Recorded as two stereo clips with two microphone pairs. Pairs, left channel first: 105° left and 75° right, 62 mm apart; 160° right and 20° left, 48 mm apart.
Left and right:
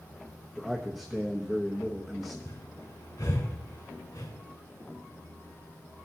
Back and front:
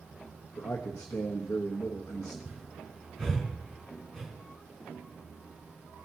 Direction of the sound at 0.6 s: 160° right.